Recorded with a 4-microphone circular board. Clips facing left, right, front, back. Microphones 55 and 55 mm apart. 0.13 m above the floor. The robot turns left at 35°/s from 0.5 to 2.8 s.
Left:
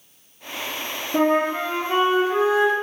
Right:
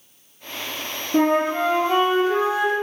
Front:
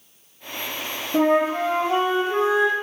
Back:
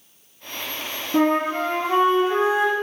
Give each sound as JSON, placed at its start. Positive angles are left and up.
{"t": 1.1, "sound": "a flute", "azimuth_deg": -175, "distance_m": 0.9}